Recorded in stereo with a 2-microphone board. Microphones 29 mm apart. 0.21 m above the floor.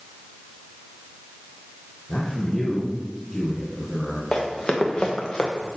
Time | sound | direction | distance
2.1 | a man speaking | 10° left (ahead or behind) | 2.5 m
4.3 | running footsteps | 15° left (ahead or behind) | 3.5 m